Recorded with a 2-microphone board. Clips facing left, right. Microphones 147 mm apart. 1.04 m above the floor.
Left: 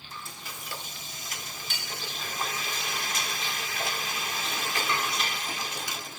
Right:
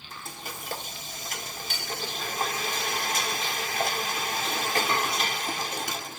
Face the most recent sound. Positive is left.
turn(degrees=-55)  # may be behind; listen again after turning